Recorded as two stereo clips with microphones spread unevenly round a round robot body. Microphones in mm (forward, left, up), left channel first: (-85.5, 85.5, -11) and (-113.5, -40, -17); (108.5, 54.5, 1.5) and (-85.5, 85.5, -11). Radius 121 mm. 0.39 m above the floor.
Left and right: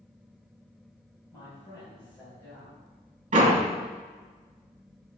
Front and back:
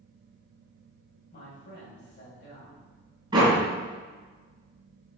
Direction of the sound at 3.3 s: 120° right.